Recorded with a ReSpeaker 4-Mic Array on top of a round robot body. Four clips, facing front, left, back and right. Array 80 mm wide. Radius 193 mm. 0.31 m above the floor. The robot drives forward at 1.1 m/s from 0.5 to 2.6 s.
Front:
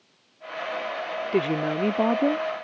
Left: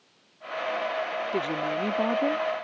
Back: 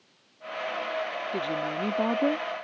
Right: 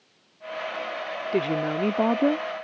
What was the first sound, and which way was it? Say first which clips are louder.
A woman speaking: right 6 dB, front 8 dB; 20° right.